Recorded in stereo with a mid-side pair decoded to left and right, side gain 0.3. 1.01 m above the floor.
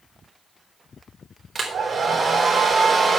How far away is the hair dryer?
About 4 m.